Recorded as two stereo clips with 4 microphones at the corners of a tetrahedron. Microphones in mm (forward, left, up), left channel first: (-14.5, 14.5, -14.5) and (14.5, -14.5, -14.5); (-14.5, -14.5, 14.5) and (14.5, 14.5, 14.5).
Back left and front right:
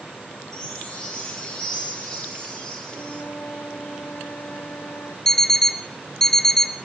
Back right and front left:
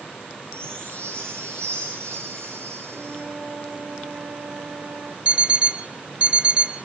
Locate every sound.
0.5 s a chime: 60° left, 10 m
2.9 s a flute: 85° left, 7.5 m
5.2 s an alarm clock: 70° left, 0.6 m